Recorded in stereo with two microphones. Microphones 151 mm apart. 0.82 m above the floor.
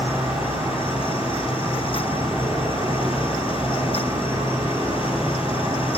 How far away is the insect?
About 3 m.